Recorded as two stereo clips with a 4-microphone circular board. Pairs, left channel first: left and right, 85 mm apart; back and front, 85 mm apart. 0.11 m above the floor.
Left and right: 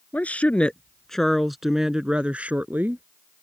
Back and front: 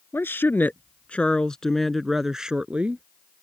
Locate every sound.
0.1 s a woman speaking: 145° left; by 3.0 s 55° right